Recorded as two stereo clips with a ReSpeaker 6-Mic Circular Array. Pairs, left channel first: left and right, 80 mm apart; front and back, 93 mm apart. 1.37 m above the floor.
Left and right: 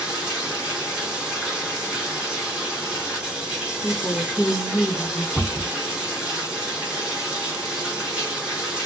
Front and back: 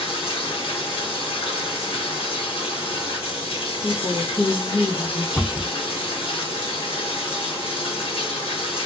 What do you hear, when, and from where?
0.0 s running water: 10° right, 1.3 m
3.8 s a woman speaking: 35° left, 1.2 m
5.3 s a cupboard door: 35° right, 1.0 m